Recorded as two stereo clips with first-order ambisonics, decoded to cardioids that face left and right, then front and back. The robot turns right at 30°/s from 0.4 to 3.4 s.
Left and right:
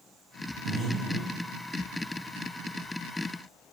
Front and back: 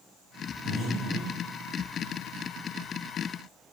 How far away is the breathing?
About 1.8 m.